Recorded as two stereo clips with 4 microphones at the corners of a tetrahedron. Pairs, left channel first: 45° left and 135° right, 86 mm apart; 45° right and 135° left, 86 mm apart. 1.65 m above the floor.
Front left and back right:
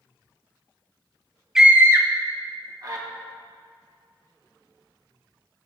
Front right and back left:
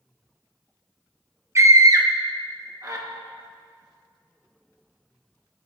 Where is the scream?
145° left, 0.6 m; by 3.0 s straight behind, 2 m.